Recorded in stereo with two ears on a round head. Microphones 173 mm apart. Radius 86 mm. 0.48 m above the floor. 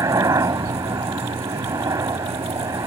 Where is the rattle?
No rattle in this recording.